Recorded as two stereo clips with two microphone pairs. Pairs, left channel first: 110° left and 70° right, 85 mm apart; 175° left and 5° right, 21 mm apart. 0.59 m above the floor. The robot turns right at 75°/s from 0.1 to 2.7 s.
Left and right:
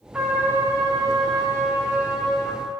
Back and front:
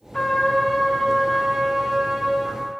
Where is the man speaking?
I don't hear a man speaking.